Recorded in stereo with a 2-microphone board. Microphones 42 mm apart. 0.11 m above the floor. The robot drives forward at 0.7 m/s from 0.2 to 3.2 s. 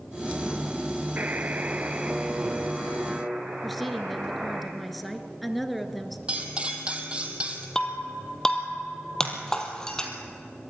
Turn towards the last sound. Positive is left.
turn(degrees=15)  # may be behind; listen again after turning